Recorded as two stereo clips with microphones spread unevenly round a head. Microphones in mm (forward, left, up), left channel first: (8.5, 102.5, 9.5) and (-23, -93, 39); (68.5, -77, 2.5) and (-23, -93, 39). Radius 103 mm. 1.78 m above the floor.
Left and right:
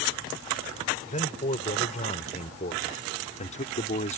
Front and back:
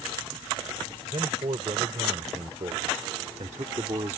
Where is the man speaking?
140° left.